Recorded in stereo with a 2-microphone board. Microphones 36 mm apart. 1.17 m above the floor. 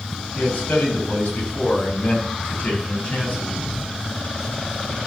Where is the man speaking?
65° left (ahead or behind), 6 m; by 3.5 s 50° left (ahead or behind), 7 m.